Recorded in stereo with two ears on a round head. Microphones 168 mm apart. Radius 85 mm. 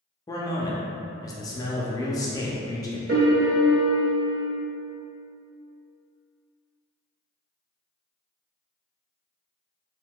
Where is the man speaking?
20° left (ahead or behind), 0.6 m.